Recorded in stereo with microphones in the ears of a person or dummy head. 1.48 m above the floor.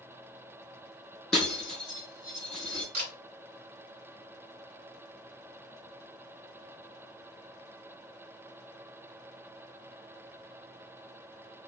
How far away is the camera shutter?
About 3 m.